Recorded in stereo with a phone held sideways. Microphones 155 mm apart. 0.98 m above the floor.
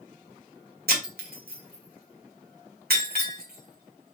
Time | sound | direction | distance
0.9 | breaking glass | 80° right | 2.5 m